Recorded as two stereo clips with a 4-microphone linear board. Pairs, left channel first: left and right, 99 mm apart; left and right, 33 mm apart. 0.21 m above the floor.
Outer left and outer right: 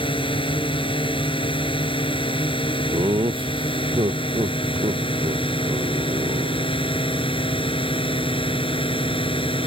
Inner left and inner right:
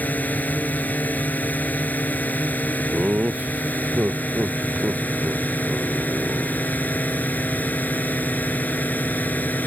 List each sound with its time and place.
0.0 s a drone: 60° left (ahead or behind); by 9.7 s 65° left (ahead or behind)
2.9 s laughter: 60° right (ahead or behind)